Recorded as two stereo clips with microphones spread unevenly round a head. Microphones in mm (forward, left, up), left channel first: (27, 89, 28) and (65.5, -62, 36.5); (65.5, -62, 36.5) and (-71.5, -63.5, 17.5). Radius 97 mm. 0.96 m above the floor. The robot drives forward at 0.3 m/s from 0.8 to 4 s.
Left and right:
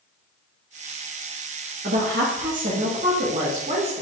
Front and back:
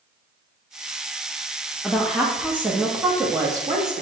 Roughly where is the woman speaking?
Right.